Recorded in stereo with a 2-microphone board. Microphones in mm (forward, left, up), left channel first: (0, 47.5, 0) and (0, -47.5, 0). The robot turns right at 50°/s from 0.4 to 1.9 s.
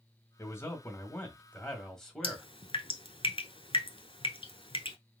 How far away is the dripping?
About 0.8 m.